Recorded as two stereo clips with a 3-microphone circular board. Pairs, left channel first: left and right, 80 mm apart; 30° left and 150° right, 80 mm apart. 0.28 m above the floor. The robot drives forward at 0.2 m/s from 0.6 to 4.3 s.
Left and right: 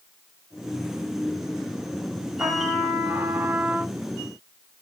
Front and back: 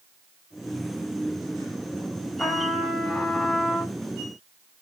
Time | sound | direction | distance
2.4 | a trumpet | 45° right | 1.4 m